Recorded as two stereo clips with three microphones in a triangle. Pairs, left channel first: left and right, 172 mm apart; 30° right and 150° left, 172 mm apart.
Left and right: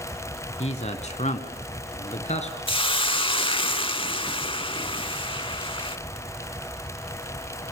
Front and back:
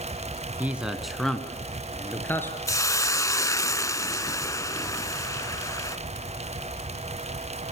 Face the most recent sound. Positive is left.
turn(degrees=35)